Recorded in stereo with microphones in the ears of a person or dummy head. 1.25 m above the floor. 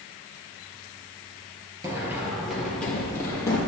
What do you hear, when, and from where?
1.8 s running footsteps: 20° right (ahead or behind), 1.6 m; by 3.6 s 15° left (ahead or behind), 2.5 m